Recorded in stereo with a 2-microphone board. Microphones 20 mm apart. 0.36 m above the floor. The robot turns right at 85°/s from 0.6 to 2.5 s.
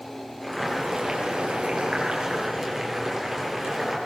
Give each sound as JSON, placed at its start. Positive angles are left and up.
{"t": 0.4, "sound": "boiling", "azimuth_deg": -175, "distance_m": 8.0}